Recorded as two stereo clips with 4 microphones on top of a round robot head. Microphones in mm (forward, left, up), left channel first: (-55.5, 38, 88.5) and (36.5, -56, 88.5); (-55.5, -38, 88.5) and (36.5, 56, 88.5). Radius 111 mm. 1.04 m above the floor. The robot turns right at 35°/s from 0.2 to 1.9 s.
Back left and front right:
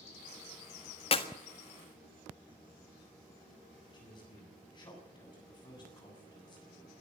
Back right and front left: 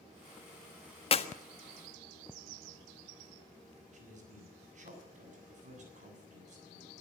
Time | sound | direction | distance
1.1 | a clap | straight behind | 1.5 m
3.9 | a man speaking | 75° left | 7.5 m